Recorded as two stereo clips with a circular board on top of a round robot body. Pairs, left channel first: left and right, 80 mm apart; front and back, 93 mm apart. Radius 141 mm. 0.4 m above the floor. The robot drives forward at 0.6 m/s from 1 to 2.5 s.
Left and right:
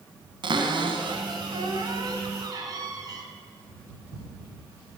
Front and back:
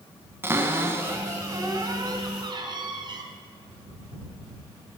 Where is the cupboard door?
115° right, 1.6 m; by 3.2 s 135° right, 2 m.